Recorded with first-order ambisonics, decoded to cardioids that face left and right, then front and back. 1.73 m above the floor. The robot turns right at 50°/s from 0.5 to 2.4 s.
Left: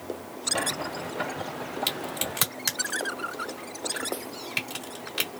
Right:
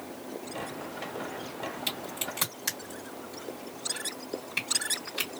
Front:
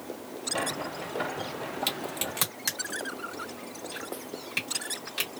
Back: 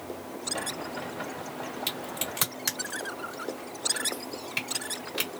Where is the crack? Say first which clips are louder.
Left 5 dB, even; 65° left, 1.6 m; by 5.3 s 90° left, 1.6 m.